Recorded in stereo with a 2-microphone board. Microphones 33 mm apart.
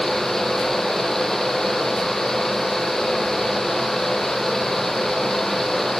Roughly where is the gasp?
I don't hear a gasp.